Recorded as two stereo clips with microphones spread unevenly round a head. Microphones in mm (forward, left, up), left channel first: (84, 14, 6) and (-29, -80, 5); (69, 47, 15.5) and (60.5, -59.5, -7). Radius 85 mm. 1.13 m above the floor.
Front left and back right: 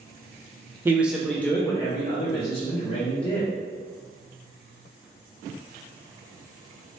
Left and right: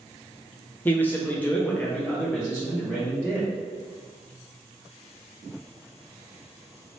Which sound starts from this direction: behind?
A man speaking, at 0.8 s.